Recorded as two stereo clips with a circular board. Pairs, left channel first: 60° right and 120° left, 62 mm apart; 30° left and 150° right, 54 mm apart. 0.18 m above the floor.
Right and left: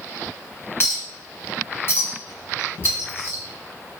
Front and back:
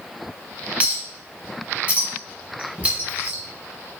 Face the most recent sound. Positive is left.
turn(degrees=-90)